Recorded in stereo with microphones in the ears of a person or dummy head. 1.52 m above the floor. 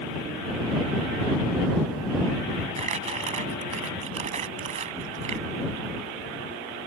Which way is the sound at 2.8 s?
35° right (ahead or behind).